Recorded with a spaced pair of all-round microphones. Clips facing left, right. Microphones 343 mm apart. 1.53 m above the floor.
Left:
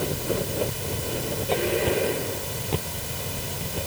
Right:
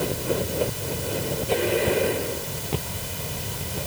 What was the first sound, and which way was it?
Only background noise.